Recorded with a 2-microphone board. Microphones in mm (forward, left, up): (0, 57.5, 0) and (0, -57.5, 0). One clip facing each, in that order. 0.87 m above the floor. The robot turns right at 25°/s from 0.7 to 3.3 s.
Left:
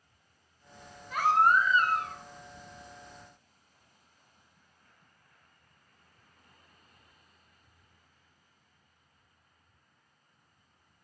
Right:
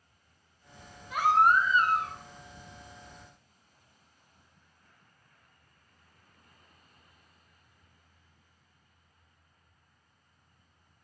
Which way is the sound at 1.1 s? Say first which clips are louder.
Right 1 dB; 5° right (ahead or behind).